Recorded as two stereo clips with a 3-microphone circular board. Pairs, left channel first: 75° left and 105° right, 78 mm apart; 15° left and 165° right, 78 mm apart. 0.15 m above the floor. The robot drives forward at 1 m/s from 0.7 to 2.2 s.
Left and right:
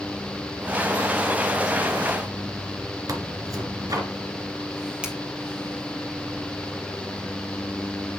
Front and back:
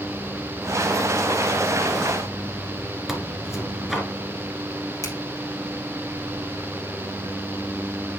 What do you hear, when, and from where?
3.1 s tearing paper: 80° right, 1.6 m
5.0 s a finger snap: 30° right, 2.5 m